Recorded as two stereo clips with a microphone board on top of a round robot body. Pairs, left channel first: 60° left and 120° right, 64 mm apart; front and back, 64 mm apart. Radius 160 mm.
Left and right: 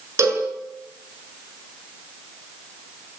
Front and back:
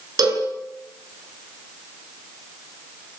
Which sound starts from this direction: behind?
A cowbell, at 0.2 s.